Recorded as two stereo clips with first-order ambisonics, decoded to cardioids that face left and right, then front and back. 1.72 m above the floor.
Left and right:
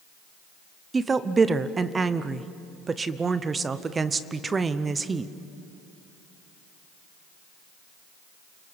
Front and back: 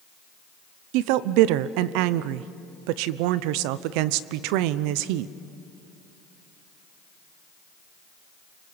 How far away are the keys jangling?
No keys jangling in this recording.